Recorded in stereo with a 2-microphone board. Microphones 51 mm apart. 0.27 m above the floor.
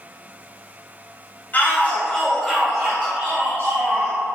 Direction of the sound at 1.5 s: 35° left (ahead or behind).